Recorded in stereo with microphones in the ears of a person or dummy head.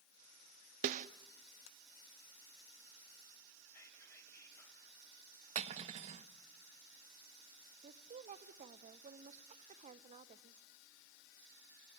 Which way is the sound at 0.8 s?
45° right (ahead or behind).